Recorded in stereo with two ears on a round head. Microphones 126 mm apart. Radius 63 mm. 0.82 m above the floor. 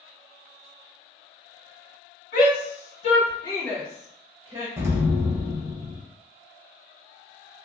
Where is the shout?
65° left (ahead or behind), 1.5 m; by 4.7 s 30° right (ahead or behind), 1.1 m.